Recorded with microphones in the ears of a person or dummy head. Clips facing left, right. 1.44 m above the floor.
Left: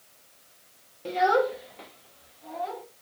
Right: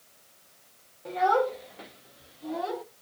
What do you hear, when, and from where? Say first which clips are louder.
1.1 s a child speaking: left 2 dB; 40° left (ahead or behind), 1.2 m; by 2.8 s 60° right (ahead or behind), 1.7 m